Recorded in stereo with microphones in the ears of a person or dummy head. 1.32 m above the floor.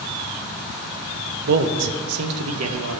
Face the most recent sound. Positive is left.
turn(degrees=-80)